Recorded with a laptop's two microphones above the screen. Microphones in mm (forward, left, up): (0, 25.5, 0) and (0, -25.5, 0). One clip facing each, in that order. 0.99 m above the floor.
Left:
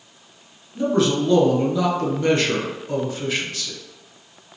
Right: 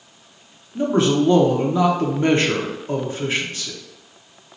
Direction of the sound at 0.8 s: 30° right (ahead or behind).